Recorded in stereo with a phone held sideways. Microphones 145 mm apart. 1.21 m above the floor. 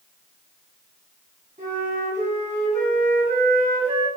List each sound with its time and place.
1.6 s a flute: 65° right (ahead or behind), 1.2 m